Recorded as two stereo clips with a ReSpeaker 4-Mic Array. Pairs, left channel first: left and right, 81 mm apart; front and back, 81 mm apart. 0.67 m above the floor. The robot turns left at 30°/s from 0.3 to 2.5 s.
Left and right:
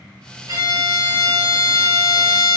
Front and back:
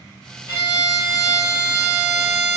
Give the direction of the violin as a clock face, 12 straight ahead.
2 o'clock.